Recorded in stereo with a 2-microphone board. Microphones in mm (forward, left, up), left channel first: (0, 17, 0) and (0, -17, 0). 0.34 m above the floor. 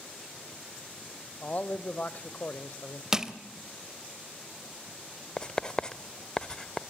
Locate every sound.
1.4 s a man speaking: 45° left (ahead or behind), 1.1 m
3.1 s crushing: 15° right (ahead or behind), 1.3 m
5.4 s writing: 20° left (ahead or behind), 0.7 m